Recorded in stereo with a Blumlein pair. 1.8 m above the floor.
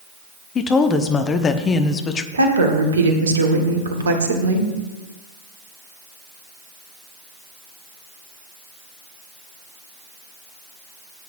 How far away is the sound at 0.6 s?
About 0.9 m.